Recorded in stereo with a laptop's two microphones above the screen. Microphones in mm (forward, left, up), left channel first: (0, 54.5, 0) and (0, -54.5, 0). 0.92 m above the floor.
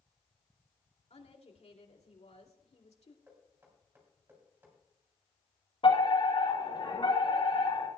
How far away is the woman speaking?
About 2.5 m.